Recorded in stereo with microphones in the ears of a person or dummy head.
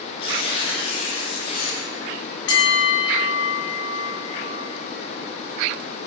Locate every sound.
0.2 s tearing paper: 30° left (ahead or behind), 1.1 m
2.5 s a bell: 75° left (ahead or behind), 0.7 m